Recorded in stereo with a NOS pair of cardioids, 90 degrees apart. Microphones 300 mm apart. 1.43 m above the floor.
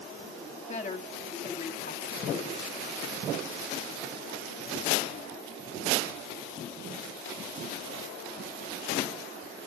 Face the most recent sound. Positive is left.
turn(degrees=25)